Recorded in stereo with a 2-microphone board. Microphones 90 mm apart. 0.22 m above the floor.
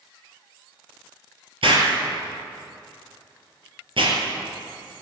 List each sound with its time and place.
1.6 s an explosion: 75° right (ahead or behind), 3.5 m